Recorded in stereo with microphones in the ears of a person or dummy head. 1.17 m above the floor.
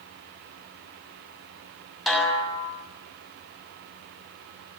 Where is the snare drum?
Centre (ahead or behind), 7 m.